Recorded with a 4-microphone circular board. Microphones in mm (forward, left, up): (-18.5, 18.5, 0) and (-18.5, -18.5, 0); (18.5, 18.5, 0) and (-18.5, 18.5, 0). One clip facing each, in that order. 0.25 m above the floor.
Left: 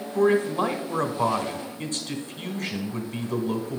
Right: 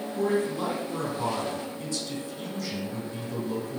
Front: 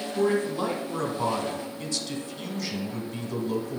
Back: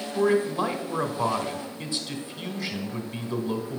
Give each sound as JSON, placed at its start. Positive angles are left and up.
{"t": 0.1, "sound": "a man speaking", "azimuth_deg": 120, "distance_m": 1.8}